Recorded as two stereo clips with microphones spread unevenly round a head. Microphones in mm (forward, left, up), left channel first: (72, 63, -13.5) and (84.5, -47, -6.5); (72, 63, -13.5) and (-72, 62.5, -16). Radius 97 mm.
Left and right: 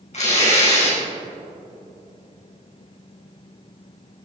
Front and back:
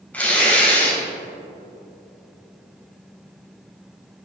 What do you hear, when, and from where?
0.1 s tearing paper: 80° left, 4 m